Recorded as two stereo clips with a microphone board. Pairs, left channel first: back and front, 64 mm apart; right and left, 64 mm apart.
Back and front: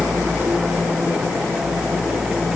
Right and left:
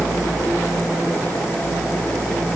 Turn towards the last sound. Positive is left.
No sound to turn to.